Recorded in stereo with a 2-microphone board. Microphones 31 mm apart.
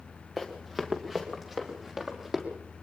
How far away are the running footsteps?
About 2.5 m.